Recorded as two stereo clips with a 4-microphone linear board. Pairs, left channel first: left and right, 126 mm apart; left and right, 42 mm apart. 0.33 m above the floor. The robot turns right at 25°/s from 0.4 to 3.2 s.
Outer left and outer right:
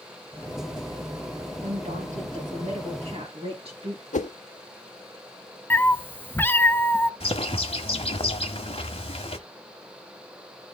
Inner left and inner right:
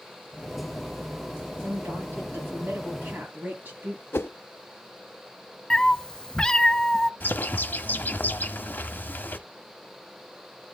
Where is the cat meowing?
15° left (ahead or behind), 0.5 m.